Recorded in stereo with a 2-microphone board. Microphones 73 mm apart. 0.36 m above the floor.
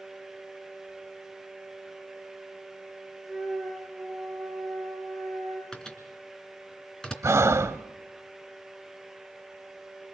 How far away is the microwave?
About 3 m.